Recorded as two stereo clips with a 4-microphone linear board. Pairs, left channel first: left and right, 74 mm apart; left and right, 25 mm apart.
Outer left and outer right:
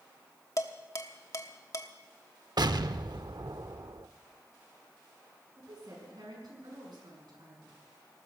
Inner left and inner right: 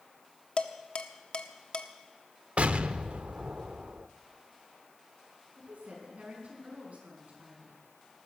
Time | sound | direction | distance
0.6 | dishes clattering | 45° left (ahead or behind) | 1.0 m
2.6 | an explosion | 65° right (ahead or behind) | 0.5 m
5.6 | a woman speaking | 65° right (ahead or behind) | 6 m